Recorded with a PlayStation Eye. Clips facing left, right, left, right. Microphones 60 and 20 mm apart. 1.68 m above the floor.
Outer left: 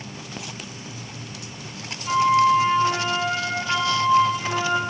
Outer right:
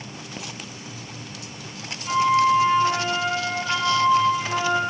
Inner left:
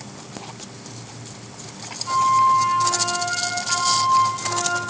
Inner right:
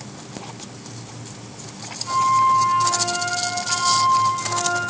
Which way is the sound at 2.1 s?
5° left (ahead or behind).